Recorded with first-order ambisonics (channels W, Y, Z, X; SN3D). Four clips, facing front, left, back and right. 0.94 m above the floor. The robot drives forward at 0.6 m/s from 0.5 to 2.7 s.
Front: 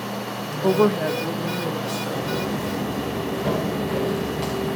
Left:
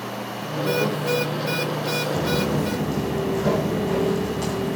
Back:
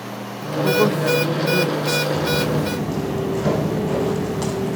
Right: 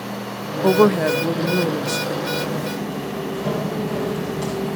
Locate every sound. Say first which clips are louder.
0.6 s a woman speaking: right 8 dB, back 1 dB; 75° right, 0.9 m; by 2.0 s 130° right, 1.1 m
2.1 s footsteps: left 1 dB, back 5 dB; 130° left, 2.5 m; by 4.8 s 175° left, 3 m